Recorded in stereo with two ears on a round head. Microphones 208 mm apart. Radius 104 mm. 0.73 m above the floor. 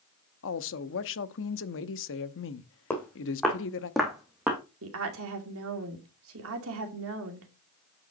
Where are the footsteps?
10° left (ahead or behind), 3 m; by 4.6 s 5° right (ahead or behind), 2.5 m.